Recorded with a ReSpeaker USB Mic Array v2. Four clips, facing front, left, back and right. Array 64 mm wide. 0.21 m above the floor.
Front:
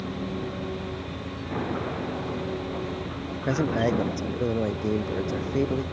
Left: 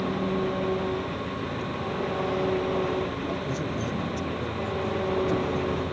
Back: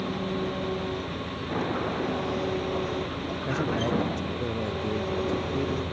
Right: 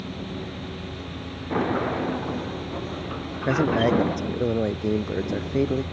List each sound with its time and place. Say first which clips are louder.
0.0 s an engine running: left 7 dB, back 2 dB; 110° left
1.5 s a sliding door: right 6 dB, back 1 dB; 95° right
3.4 s a man speaking: right 9 dB, front 4 dB; 65° right